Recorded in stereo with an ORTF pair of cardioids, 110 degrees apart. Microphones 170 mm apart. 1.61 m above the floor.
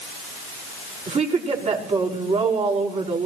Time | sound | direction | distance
1.1 | a woman speaking | 40° right | 5 m